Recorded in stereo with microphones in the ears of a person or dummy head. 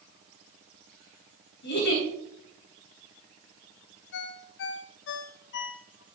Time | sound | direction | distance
1.6 | a giggle | 55° left (ahead or behind) | 3 m
4.1 | a ringtone | 55° left (ahead or behind) | 0.7 m